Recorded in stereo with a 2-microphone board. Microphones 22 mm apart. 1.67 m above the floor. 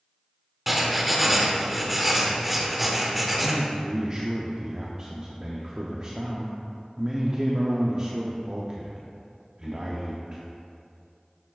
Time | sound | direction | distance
0.7 | writing | 5° right (ahead or behind) | 0.8 m
3.4 | a man speaking | 30° right (ahead or behind) | 0.6 m